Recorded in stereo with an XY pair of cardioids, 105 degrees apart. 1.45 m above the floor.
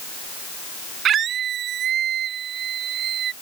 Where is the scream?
60° right; by 3.3 s 65° right.